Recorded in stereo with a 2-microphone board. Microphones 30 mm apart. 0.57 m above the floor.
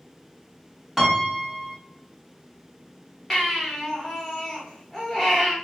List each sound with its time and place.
1.0 s a piano: 15° right (ahead or behind), 0.8 m
3.3 s a baby crying: centre (ahead or behind), 0.9 m